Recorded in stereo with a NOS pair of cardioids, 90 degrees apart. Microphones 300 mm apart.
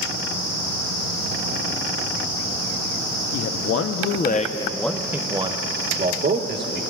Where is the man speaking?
65° left, 0.9 m; by 6.8 s 35° right, 1.5 m.